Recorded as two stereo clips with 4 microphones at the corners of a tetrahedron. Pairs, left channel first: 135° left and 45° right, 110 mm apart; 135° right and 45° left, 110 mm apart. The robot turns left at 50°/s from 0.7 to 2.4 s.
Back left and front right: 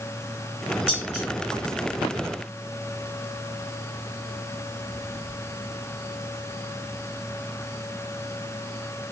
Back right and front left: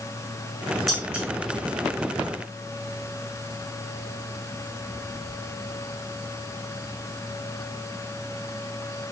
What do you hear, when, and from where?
0.9 s dishes clattering: 140° left, 8 m; by 1.2 s 120° left, 8 m